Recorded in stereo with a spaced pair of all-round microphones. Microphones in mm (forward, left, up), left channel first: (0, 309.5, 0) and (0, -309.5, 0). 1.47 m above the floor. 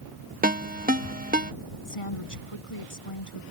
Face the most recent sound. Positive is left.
turn(degrees=55)  # may be behind; listen again after turning